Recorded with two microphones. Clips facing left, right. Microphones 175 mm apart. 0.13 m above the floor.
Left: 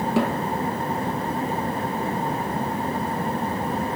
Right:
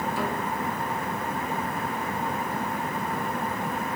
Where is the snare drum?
70° left (ahead or behind), 2 m.